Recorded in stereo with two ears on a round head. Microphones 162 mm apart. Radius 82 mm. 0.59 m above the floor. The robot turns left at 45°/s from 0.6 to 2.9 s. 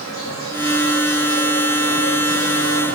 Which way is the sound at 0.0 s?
80° left.